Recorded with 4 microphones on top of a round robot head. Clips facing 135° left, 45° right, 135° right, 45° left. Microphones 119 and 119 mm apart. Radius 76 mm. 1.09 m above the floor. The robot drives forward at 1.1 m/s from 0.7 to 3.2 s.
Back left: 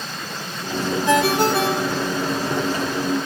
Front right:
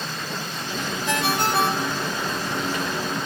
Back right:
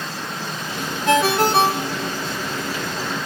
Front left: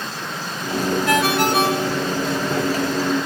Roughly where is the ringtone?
Behind left.